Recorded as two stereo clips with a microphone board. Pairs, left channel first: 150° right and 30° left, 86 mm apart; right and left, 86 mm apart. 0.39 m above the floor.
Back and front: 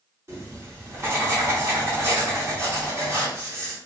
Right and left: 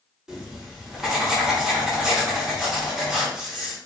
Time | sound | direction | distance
0.3 | writing | 15° left | 0.9 m